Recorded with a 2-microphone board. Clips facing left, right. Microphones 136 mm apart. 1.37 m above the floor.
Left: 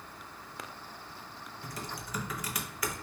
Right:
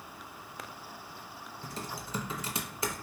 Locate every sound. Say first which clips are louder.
1.6 s typing on a keyboard: right 1 dB; 25° right (ahead or behind), 0.5 m